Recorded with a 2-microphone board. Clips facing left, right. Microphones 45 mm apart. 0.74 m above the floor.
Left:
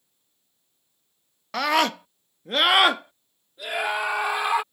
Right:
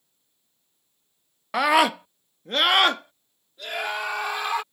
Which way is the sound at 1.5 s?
20° right (ahead or behind).